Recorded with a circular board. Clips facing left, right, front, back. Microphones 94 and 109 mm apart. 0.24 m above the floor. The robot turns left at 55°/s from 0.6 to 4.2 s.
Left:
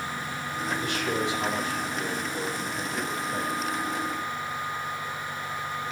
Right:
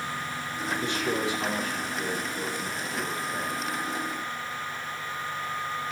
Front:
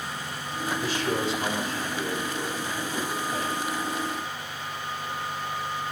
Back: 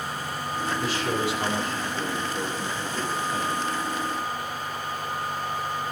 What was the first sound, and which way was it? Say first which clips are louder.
A man speaking: right 1 dB, even; 150° right.